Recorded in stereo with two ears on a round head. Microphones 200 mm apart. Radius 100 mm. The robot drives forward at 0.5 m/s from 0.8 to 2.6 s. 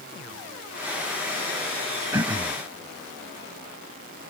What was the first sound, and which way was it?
Throat clearing, 15° right (ahead or behind).